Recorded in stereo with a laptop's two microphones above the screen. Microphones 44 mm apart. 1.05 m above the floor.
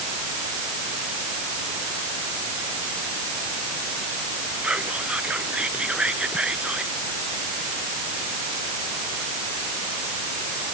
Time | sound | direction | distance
4.6 | whispering | 25° right (ahead or behind) | ?